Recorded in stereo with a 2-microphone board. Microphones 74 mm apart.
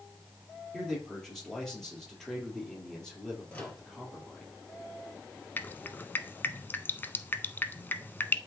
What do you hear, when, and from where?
0.7 s a man speaking: 10° left (ahead or behind), 4 m
3.5 s a microwave: 20° left (ahead or behind), 3.5 m
5.6 s dripping: 25° left (ahead or behind), 0.5 m